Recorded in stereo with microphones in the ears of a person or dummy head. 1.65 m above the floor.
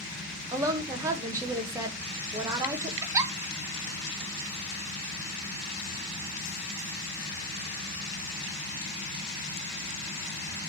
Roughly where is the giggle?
Centre.